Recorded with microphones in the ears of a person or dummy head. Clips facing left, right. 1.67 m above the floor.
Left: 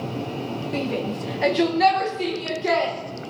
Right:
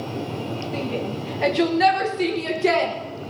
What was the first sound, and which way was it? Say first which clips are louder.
A shout: left 2 dB; 30° left (ahead or behind).